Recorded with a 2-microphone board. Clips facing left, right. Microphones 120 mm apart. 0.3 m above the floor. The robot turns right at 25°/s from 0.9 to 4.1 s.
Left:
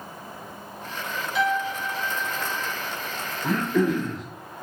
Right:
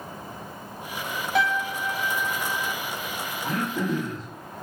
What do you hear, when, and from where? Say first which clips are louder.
1.4 s a piano: even; 60° right, 1.1 m; by 2.7 s 30° right, 1.1 m
3.4 s throat clearing: left 5 dB; 85° left, 0.8 m; by 4.2 s 75° left (ahead or behind), 0.8 m